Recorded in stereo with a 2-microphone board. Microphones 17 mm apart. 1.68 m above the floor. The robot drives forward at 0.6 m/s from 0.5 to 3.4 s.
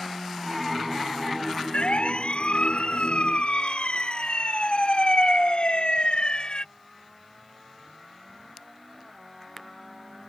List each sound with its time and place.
1.7 s a siren: 85° left; by 6.7 s 55° left (ahead or behind)